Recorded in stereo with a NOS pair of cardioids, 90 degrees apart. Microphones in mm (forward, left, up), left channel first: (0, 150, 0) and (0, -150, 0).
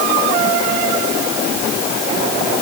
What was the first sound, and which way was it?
Only background noise.